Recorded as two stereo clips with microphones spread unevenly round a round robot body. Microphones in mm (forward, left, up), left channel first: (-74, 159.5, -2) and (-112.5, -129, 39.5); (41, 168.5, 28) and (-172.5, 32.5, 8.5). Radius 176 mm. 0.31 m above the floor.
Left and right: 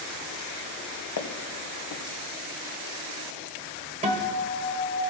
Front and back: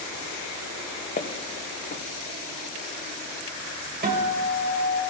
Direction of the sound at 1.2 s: 90° left.